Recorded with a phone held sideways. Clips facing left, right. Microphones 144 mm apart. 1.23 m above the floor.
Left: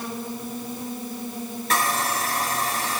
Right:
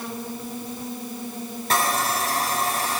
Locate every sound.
1.7 s sawing: 35° right (ahead or behind), 6.5 m